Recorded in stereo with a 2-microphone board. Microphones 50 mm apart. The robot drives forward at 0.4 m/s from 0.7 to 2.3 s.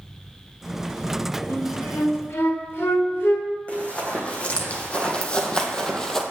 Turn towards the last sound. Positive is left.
turn(degrees=10)  # may be behind; listen again after turning